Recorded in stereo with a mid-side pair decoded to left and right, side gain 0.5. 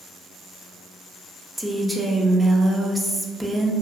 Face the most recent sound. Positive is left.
turn(degrees=-5)